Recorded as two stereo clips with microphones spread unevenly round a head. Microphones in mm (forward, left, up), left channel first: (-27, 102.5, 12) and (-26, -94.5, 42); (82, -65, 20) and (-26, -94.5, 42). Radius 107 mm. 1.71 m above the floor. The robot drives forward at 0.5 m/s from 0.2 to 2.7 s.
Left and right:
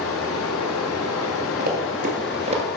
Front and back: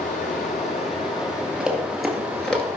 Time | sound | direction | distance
0.0 | running water | 60° left | 1.2 m
1.6 | running footsteps | 95° right | 2.5 m